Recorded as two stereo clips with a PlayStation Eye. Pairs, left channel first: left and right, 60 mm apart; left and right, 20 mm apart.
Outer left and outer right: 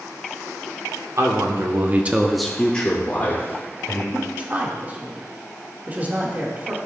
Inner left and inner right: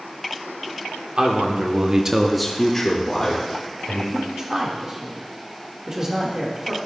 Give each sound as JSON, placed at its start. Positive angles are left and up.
{"t": 1.2, "sound": "a man speaking", "side_deg": -55, "distance_m": 1.4}
{"t": 4.1, "sound": "a man speaking", "side_deg": -30, "distance_m": 1.8}